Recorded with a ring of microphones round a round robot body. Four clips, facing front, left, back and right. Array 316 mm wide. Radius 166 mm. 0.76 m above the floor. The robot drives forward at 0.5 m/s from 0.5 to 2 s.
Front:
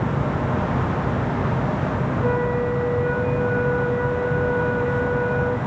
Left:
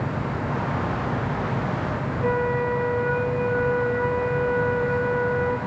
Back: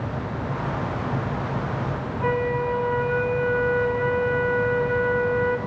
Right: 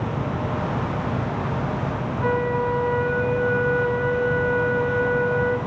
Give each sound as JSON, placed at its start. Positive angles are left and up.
{"t": 2.2, "sound": "a flute", "azimuth_deg": -130, "distance_m": 2.0}